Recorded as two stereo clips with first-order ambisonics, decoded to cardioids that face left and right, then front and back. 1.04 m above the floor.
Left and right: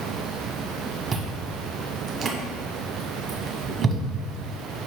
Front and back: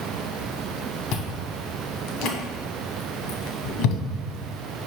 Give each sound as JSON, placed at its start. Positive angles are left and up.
{"t": 1.1, "sound": "chewing", "azimuth_deg": -25, "distance_m": 1.5}